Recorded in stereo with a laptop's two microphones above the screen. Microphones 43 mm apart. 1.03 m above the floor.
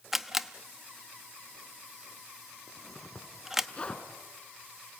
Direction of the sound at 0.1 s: 10° right (ahead or behind).